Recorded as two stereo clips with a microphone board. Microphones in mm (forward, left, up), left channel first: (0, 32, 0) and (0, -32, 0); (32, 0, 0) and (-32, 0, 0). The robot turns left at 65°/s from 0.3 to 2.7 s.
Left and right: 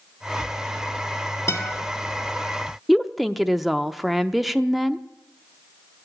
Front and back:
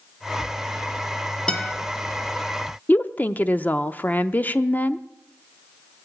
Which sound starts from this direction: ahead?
A woman speaking, at 2.9 s.